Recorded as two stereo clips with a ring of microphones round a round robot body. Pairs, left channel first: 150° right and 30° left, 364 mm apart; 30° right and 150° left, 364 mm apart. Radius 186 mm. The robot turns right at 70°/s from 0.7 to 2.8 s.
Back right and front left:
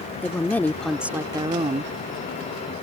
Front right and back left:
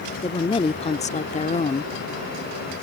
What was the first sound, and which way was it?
A woman speaking, 75° right.